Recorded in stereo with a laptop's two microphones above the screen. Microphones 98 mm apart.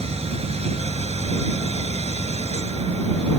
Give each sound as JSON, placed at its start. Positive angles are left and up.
{"t": 0.0, "sound": "a machine running", "side_deg": -90}